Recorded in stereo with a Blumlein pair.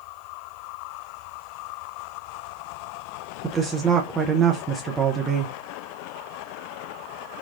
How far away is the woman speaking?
About 0.6 m.